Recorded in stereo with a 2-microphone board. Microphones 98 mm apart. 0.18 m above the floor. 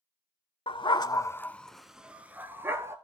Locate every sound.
0.7 s a dog barking: 55° left (ahead or behind), 0.6 m; by 3.0 s 25° right (ahead or behind), 1.3 m